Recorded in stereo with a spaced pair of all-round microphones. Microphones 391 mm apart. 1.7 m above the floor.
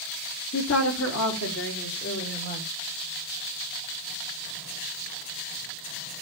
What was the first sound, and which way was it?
A woman speaking, 40° left (ahead or behind).